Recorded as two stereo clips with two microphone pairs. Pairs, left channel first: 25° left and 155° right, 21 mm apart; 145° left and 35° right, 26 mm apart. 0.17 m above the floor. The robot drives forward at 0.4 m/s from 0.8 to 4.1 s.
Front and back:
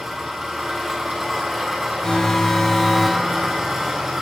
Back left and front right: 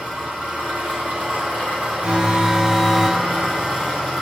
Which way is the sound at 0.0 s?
70° right.